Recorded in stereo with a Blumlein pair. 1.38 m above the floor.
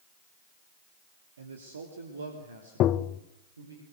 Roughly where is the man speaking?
Right.